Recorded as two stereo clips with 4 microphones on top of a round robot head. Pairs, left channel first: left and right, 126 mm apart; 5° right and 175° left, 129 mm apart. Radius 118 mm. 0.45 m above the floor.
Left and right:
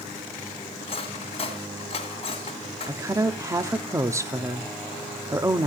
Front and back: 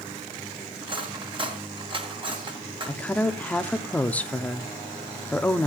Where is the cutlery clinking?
130° left, 2 m.